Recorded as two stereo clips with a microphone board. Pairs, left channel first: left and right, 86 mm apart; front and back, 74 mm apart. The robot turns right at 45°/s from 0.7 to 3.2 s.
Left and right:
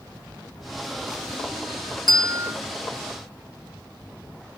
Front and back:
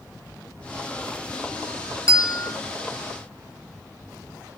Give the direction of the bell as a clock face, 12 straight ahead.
2 o'clock.